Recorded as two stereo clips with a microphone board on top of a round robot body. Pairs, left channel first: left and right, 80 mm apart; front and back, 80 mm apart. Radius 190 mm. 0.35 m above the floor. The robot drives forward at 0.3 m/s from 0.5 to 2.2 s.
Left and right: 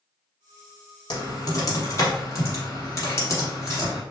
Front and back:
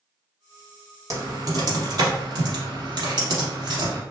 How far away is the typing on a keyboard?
About 0.8 m.